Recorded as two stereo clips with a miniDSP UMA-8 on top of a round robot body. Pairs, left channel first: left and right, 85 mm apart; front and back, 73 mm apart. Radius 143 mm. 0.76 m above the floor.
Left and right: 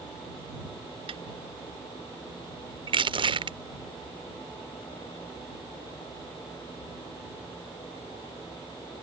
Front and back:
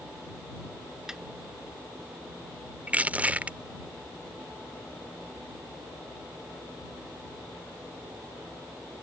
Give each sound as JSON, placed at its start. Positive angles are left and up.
{"t": 1.1, "sound": "a snare drum", "azimuth_deg": -100}
{"t": 2.9, "sound": "crushing", "azimuth_deg": -110}